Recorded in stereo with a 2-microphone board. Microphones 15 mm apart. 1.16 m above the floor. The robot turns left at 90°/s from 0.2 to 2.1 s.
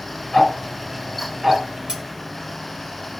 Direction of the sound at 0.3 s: 40° left (ahead or behind).